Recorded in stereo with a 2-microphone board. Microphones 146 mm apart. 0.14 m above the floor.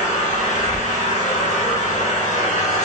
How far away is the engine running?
About 2 m.